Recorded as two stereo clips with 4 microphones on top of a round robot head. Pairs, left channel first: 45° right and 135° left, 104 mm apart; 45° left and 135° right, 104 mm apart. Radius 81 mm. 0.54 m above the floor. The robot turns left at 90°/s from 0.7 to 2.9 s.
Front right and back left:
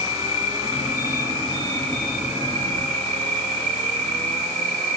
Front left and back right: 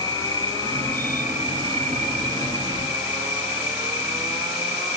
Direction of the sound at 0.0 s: 10° right.